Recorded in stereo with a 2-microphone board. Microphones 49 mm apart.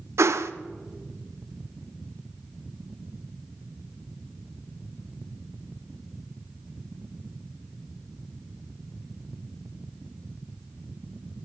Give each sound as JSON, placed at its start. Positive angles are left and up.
{"t": 0.2, "sound": "a whoosh", "side_deg": -75, "distance_m": 0.7}